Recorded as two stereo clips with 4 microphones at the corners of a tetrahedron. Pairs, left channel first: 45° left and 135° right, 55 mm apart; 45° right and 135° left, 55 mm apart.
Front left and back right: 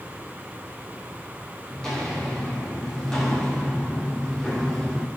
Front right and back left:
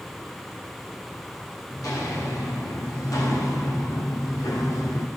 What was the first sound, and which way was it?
Footsteps, 40° right.